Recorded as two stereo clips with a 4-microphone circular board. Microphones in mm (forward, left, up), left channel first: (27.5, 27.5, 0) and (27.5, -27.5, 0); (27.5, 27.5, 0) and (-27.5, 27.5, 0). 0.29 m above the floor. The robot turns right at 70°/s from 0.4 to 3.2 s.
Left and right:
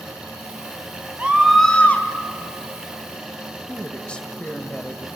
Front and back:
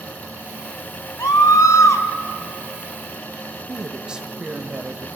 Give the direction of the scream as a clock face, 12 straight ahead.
1 o'clock.